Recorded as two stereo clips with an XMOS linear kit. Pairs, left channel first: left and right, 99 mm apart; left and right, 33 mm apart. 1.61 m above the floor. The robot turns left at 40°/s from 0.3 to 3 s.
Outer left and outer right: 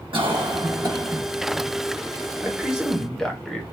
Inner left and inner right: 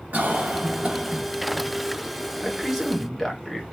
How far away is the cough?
About 1.2 m.